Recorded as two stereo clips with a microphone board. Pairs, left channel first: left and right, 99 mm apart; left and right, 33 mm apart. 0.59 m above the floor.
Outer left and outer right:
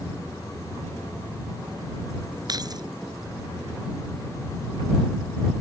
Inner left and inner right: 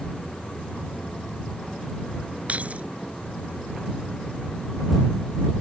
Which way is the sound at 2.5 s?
45° right (ahead or behind).